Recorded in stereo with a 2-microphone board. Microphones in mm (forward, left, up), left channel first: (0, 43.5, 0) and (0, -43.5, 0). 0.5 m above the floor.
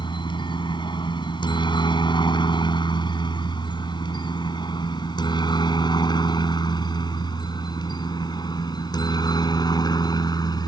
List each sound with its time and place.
0.0 s a helicopter: 60° left (ahead or behind); by 10.7 s 50° left (ahead or behind)